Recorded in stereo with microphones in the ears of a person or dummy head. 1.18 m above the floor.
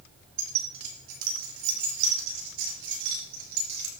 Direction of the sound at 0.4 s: 55° right (ahead or behind).